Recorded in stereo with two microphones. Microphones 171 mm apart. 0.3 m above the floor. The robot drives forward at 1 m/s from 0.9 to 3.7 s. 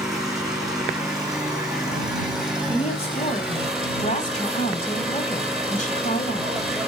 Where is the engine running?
Centre (ahead or behind), 6 m.